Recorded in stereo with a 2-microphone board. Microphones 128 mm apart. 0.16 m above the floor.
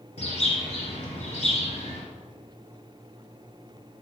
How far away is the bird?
About 2.5 m.